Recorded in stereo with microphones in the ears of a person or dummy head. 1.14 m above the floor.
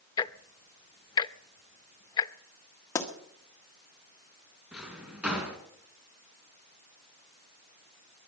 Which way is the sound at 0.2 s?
20° left (ahead or behind).